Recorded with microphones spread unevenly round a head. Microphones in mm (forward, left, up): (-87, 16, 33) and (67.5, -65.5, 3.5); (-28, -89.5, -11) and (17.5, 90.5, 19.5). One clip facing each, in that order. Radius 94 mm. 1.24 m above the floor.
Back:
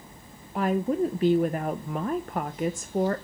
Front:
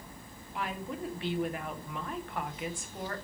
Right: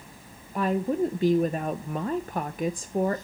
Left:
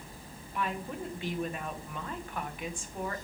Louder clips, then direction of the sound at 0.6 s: Back 13 dB, right 11 dB; 160° right.